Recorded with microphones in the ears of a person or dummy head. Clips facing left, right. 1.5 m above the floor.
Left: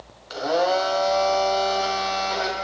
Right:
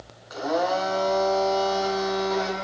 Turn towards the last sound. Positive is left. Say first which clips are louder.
# left 3 dB
turn(degrees=45)  # may be behind; listen again after turning